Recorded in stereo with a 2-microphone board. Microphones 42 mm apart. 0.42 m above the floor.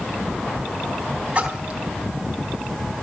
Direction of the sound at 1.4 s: 30° right (ahead or behind).